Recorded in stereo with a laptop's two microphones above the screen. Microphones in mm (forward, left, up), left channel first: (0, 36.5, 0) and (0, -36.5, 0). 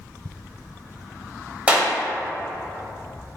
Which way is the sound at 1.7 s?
20° right (ahead or behind).